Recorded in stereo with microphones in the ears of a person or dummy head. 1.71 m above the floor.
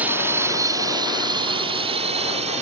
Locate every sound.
0.0 s a drone: 10° right (ahead or behind); by 2.6 s 35° right (ahead or behind)